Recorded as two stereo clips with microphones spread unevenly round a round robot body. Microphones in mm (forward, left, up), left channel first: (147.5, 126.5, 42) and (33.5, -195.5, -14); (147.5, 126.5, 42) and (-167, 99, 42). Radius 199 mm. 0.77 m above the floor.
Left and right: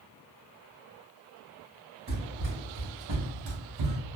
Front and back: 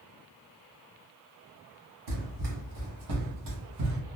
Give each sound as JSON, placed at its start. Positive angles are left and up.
{"t": 2.1, "sound": "running footsteps", "azimuth_deg": 180, "distance_m": 1.8}